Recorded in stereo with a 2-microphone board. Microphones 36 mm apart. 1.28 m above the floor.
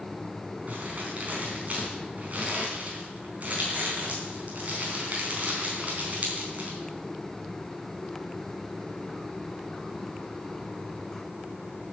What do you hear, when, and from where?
0.7 s crumpling: 45° right (ahead or behind), 3.5 m